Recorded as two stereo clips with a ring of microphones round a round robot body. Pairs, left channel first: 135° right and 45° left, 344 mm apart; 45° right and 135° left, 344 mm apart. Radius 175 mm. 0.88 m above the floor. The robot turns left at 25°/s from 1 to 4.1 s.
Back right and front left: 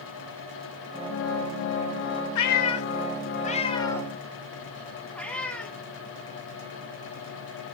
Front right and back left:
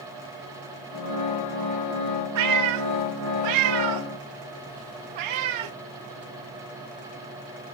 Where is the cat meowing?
Straight behind, 0.6 m; by 5.7 s 140° left, 0.6 m.